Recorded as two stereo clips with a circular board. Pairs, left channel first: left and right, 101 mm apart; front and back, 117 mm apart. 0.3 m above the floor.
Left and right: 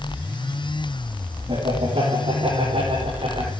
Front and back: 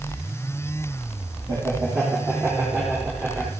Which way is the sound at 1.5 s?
115° right.